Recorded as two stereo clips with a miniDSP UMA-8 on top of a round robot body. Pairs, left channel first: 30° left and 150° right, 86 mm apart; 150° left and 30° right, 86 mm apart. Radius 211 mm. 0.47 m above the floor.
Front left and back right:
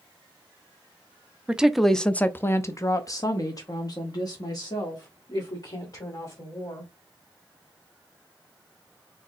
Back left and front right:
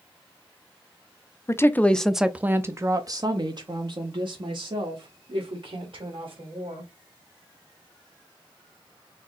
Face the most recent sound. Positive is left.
turn(degrees=-15)